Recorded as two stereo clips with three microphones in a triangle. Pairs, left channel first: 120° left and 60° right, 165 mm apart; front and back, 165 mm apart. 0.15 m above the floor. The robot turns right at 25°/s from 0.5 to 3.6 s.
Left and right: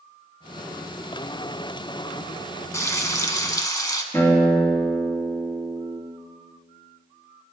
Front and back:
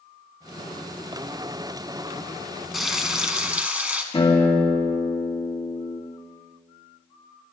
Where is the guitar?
45° left, 2.5 m.